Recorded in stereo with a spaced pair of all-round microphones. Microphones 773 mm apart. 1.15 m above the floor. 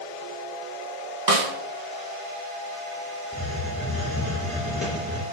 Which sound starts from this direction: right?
A snare drum, at 1.3 s.